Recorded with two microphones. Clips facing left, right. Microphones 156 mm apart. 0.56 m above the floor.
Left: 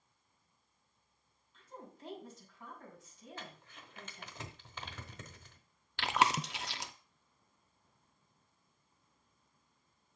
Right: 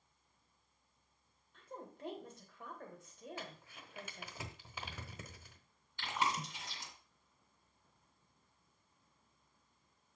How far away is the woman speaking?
About 3 m.